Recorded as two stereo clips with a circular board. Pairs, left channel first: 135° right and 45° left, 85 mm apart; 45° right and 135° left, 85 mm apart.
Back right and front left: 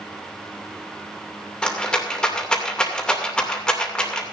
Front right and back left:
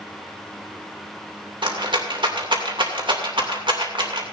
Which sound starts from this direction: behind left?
A rattle, at 1.6 s.